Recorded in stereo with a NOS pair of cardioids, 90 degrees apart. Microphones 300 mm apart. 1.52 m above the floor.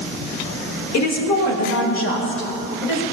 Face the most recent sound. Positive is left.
turn(degrees=40)